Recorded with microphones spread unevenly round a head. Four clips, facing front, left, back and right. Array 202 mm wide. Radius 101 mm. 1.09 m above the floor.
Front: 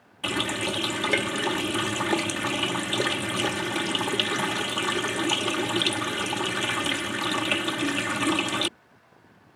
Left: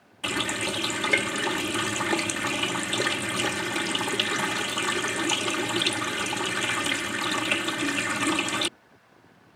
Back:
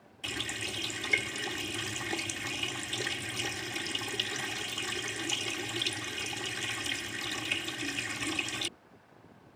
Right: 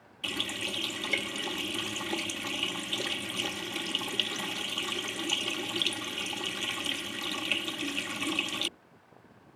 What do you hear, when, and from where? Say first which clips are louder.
0.2 s a running tap: left 8 dB, front 12 dB; 25° left